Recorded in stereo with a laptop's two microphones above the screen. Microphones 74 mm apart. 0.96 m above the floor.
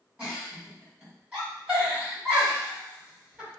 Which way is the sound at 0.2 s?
15° right (ahead or behind).